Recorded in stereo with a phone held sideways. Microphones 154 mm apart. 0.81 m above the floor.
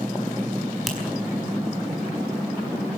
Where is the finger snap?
Centre (ahead or behind), 5 m.